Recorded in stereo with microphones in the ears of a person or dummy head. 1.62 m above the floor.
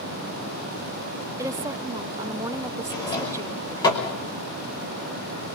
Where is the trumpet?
I don't hear a trumpet.